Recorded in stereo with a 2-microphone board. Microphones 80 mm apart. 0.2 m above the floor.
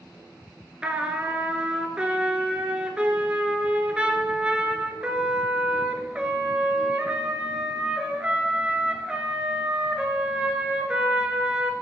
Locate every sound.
0.8 s a trumpet: 15° right (ahead or behind), 1.0 m